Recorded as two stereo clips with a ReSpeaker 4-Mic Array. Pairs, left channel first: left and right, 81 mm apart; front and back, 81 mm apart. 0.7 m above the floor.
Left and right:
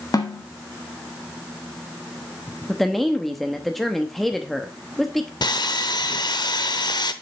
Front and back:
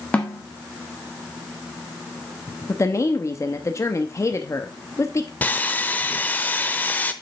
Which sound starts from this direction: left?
A snare drum, at 0.1 s.